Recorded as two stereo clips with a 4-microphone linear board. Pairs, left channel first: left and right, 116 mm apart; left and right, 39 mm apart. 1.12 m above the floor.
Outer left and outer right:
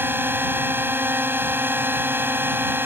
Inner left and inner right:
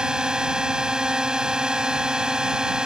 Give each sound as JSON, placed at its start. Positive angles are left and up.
{"t": 0.0, "sound": "a drone", "side_deg": -20}